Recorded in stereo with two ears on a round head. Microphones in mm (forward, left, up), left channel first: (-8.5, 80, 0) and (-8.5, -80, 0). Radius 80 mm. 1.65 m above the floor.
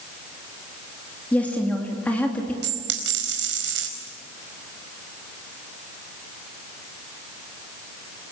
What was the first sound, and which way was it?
A woman speaking, 10° left (ahead or behind).